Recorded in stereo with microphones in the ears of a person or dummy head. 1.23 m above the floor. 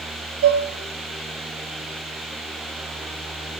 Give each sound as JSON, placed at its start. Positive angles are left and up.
{"t": 0.4, "sound": "dishes clattering", "side_deg": -65, "distance_m": 1.8}